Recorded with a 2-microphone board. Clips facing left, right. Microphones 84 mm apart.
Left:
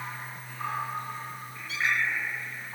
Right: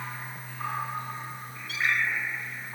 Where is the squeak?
70° right (ahead or behind), 3.5 m.